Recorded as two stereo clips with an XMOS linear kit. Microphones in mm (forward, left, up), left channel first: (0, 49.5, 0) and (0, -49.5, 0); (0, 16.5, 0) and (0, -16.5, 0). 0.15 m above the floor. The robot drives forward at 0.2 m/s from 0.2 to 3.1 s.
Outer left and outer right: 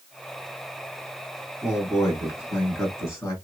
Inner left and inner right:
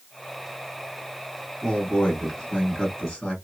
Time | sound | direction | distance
1.6 | a man speaking | 25° left (ahead or behind) | 1.8 m